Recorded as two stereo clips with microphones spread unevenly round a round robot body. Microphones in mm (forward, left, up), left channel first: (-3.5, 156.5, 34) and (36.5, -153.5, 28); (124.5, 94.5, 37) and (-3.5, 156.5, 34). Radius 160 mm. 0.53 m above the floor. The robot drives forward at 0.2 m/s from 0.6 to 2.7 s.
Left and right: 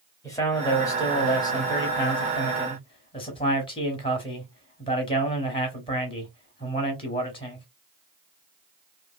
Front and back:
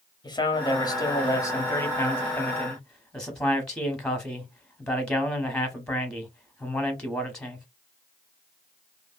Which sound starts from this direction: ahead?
A man speaking, at 0.2 s.